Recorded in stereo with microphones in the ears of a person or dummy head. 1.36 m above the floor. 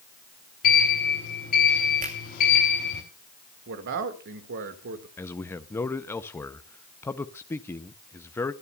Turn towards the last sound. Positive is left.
turn(degrees=10)  # may be behind; listen again after turning